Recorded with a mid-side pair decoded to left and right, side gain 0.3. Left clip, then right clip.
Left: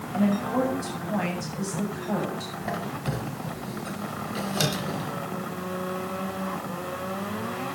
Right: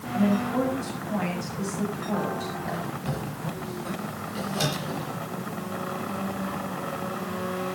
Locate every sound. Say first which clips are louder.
0.1 s a woman speaking: even; 45° left, 7.5 m
2.6 s a squeak: left 1 dB; 55° left, 4.5 m